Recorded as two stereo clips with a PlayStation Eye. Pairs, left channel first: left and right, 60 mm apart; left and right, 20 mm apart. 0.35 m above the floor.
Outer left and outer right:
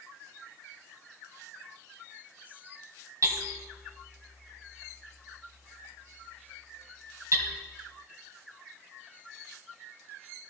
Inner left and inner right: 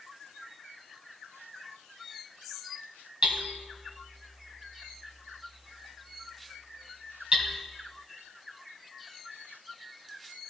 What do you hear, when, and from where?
3.2 s hammering: 65° right (ahead or behind), 1.4 m